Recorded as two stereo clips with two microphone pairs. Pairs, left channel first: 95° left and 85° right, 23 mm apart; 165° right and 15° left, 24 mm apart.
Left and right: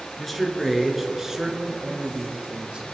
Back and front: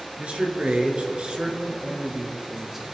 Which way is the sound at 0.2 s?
15° left.